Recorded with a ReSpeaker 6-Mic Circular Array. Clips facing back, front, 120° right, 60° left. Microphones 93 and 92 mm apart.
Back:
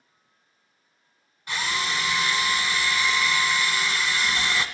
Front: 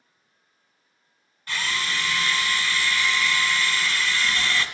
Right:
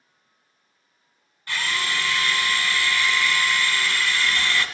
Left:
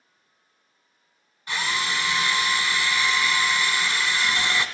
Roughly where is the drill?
Behind left.